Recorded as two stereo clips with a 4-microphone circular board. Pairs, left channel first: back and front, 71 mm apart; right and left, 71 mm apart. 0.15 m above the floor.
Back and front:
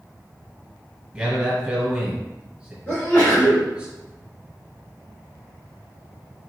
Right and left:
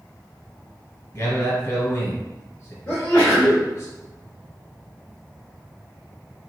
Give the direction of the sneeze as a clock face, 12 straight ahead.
5 o'clock.